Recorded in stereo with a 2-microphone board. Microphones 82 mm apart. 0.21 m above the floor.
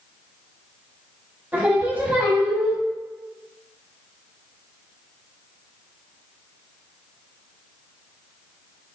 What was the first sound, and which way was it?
Singing, 20° right (ahead or behind).